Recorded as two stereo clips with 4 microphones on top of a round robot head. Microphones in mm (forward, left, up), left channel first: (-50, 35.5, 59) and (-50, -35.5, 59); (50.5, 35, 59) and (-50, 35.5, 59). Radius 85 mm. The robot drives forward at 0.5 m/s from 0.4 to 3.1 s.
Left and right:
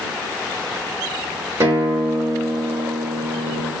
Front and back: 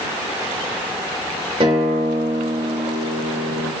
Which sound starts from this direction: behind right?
A guitar, at 1.6 s.